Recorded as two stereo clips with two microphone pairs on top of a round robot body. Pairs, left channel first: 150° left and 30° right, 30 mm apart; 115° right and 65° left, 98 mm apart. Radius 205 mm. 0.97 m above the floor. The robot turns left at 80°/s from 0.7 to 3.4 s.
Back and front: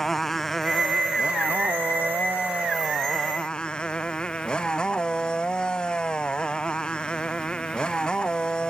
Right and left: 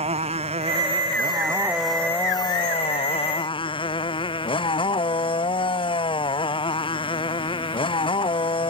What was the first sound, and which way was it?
A motorcycle, 70° left.